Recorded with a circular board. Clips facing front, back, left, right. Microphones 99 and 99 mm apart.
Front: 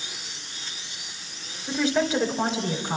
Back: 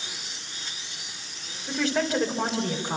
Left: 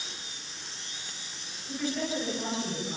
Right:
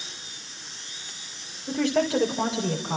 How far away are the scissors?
No scissors in this recording.